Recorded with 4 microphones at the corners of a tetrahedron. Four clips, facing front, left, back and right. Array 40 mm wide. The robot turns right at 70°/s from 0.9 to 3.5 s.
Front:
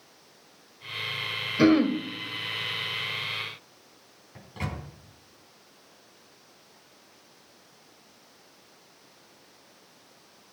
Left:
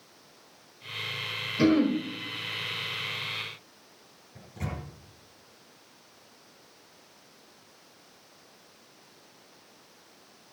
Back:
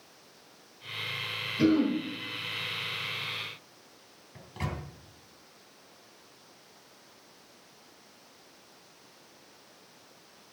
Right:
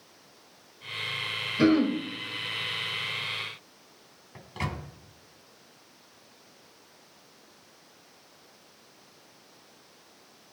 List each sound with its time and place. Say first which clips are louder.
1.6 s throat clearing: even, front 4 dB; 10° right, 1.9 m; by 2.0 s 20° left, 1.9 m
4.3 s a microwave: right 3 dB, front 1 dB; 85° right, 3 m